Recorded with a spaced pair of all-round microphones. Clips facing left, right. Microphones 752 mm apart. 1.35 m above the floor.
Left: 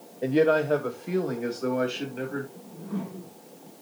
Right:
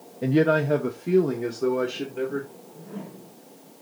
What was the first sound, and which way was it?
A man speaking, 45° right (ahead or behind).